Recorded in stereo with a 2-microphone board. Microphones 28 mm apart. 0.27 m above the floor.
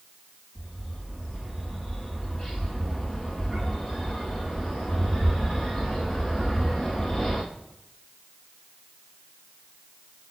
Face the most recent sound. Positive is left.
turn(degrees=30)  # may be behind; listen again after turning